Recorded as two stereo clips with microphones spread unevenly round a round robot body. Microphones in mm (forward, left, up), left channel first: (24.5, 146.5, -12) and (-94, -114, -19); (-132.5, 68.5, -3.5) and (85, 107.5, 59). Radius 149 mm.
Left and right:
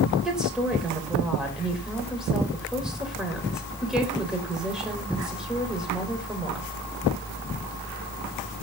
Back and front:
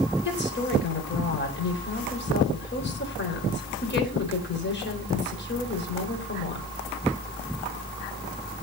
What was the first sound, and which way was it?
A woman speaking, 160° left.